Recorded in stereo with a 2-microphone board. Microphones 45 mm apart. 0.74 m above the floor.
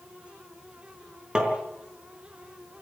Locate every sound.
1.4 s tapping: 20° right (ahead or behind), 4 m